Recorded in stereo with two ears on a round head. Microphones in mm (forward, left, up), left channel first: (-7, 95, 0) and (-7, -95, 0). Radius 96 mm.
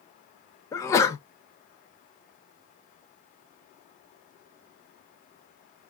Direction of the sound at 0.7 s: 15° left (ahead or behind).